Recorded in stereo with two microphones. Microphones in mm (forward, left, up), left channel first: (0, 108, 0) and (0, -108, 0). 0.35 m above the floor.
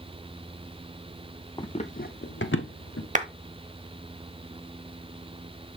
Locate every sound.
1.6 s running footsteps: 20° left (ahead or behind), 0.8 m; by 3.0 s 75° left (ahead or behind), 1.3 m
3.1 s a clap: 35° right (ahead or behind), 1.0 m